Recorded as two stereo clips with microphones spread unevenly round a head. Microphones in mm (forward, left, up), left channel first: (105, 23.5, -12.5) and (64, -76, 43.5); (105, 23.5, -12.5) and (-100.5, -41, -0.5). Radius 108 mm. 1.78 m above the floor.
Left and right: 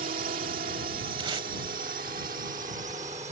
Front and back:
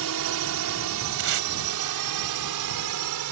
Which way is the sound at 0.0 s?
140° right.